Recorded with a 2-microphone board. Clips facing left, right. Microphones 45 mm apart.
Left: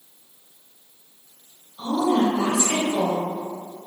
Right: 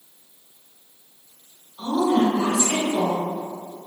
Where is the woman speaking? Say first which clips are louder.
Right 1 dB; 10° right (ahead or behind), 1.2 m.